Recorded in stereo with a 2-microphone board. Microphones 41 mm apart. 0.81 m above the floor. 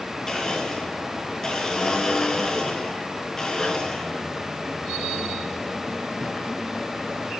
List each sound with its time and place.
0.3 s a blender: 10° left (ahead or behind), 5 m